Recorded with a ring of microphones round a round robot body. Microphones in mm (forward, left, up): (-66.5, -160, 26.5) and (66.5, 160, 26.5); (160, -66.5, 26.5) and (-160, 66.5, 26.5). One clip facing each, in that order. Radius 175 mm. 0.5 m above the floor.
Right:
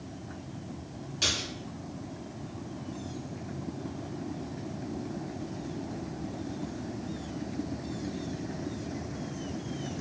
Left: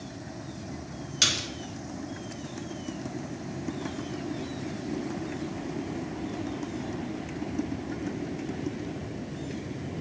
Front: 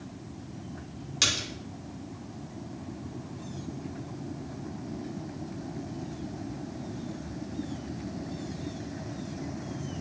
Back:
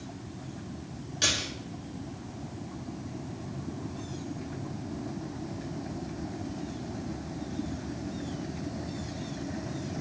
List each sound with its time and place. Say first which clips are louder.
1.2 s a splash: even, back 2 dB; 20° left, 1.2 m